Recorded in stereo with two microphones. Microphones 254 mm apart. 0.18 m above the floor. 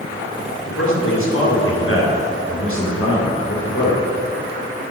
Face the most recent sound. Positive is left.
turn(degrees=60)  # may be behind; listen again after turning